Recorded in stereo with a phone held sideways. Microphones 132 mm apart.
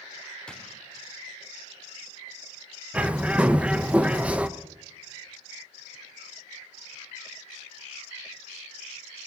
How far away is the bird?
About 0.7 m.